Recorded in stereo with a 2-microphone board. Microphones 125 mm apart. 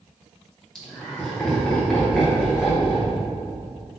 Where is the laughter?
5° left (ahead or behind), 2 m.